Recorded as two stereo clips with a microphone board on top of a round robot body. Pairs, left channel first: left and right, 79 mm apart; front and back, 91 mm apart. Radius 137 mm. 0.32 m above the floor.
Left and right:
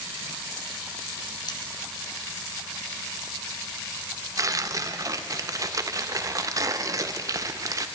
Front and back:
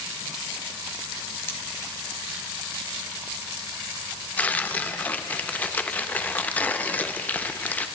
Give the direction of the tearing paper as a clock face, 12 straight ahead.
2 o'clock.